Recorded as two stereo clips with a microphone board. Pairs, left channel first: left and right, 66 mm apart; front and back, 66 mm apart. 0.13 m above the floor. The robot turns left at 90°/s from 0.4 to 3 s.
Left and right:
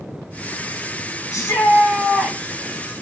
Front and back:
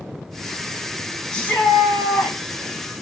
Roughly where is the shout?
Left.